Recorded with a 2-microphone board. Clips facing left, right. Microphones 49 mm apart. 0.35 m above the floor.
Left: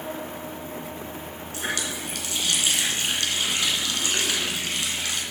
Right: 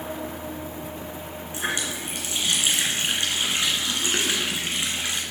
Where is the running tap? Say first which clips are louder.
Right 1 dB; 25° right (ahead or behind), 2.5 m.